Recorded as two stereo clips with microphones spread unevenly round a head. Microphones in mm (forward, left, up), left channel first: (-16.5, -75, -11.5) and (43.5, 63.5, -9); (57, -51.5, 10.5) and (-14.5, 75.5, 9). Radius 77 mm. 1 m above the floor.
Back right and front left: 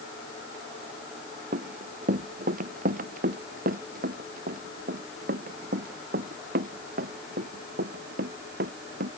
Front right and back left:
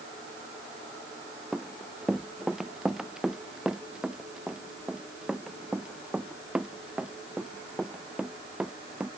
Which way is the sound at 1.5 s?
30° left.